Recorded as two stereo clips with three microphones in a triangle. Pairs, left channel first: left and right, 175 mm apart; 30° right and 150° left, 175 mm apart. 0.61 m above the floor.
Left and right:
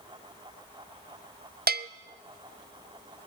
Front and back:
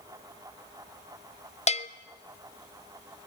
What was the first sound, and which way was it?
A bell, 75° right.